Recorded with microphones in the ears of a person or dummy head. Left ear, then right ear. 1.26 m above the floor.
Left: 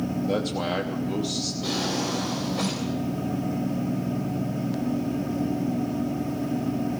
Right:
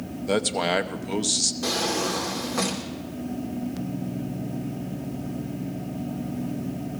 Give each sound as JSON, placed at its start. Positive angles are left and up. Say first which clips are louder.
{"t": 0.3, "sound": "a man speaking", "louder": "right 5 dB", "side_deg": -50, "distance_m": 0.8}
{"t": 1.6, "sound": "a drawer", "louder": "right 2 dB", "side_deg": -55, "distance_m": 2.5}